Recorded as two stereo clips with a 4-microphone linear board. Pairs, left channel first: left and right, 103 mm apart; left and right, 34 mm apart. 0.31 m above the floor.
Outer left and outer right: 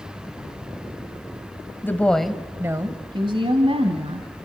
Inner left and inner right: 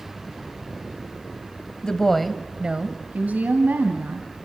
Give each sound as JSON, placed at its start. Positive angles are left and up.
{"t": 1.8, "sound": "a woman speaking", "side_deg": 20, "distance_m": 1.6}